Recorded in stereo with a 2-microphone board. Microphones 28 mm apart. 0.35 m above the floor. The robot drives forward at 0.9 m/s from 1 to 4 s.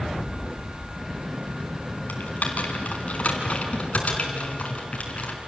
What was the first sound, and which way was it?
Typing on a keyboard, 65° left (ahead or behind).